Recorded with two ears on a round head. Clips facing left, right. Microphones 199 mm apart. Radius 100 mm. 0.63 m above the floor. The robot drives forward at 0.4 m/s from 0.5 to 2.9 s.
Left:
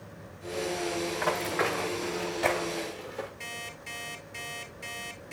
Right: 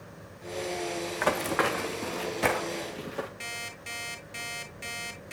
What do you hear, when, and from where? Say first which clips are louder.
1.2 s running footsteps: right 5 dB; 65° right (ahead or behind), 2 m; by 3.3 s 75° right (ahead or behind), 4 m
3.4 s an alarm clock: even; 85° right, 5.5 m